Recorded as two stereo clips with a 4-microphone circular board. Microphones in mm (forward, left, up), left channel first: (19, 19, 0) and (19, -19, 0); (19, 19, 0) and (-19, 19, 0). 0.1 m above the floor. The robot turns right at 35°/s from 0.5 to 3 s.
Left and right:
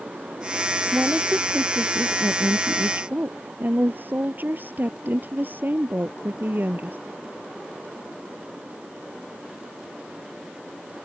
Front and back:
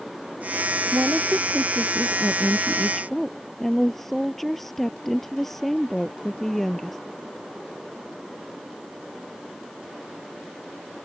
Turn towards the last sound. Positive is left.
turn(degrees=-80)